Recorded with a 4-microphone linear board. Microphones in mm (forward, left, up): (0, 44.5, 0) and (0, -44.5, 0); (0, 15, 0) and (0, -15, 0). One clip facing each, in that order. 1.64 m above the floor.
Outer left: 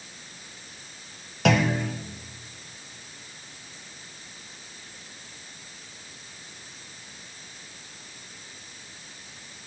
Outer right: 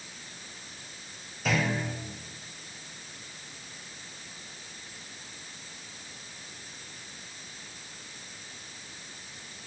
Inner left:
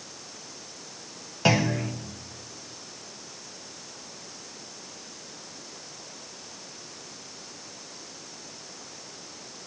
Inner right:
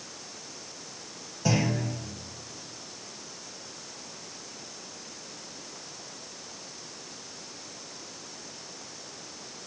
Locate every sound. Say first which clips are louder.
1.4 s a clunk: outer left 6 dB, inner left 4 dB; 75° left (ahead or behind), 1.3 m